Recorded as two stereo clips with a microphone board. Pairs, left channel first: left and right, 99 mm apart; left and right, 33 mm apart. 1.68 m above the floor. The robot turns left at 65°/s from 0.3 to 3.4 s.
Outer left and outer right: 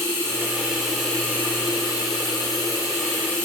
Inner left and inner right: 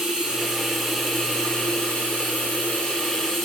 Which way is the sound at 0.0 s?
140° right.